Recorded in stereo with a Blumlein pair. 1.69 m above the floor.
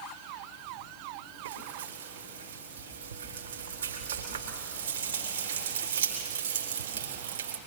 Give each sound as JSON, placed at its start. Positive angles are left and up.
{"t": 1.4, "sound": "frying", "azimuth_deg": -65, "distance_m": 3.5}